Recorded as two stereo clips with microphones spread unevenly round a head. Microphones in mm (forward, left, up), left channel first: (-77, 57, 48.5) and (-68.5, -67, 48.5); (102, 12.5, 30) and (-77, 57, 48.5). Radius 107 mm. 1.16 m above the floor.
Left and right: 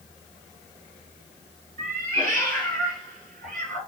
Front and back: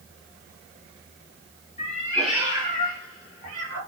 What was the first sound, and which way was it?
A cat meowing, 70° right.